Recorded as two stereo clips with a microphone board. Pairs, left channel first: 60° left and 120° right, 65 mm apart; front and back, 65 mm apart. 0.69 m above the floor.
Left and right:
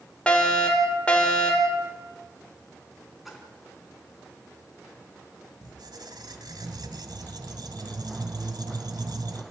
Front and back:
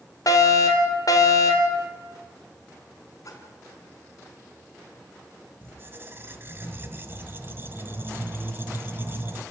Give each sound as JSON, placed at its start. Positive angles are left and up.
{"t": 0.3, "sound": "a fire alarm", "azimuth_deg": -15, "distance_m": 4.5}
{"t": 3.2, "sound": "a splash", "azimuth_deg": -35, "distance_m": 4.5}
{"t": 5.6, "sound": "a squeak", "azimuth_deg": -125, "distance_m": 2.0}